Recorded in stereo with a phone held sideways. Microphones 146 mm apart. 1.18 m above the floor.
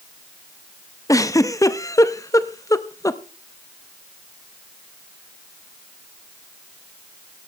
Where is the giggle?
25° left (ahead or behind), 0.6 m.